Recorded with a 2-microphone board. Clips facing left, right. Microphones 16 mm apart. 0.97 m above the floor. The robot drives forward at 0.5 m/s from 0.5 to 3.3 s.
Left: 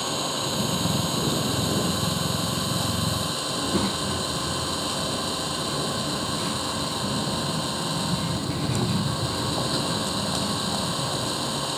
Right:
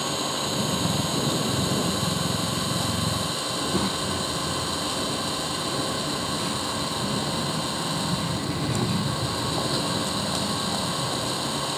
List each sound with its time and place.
0.0 s an engine running: 5° left (ahead or behind)
3.5 s a child speaking: 5° left (ahead or behind)